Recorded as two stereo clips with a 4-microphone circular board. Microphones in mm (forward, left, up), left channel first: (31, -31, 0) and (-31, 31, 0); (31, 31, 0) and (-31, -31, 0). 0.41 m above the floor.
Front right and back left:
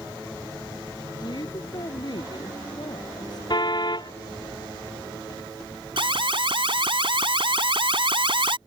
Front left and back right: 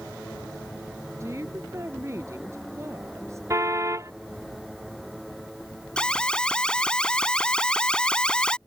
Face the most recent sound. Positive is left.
turn(degrees=125)